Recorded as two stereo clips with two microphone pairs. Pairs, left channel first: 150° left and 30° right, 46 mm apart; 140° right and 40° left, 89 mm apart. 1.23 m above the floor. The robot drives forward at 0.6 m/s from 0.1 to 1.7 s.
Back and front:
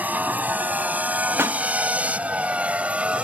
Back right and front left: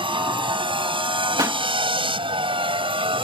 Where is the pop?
15° right.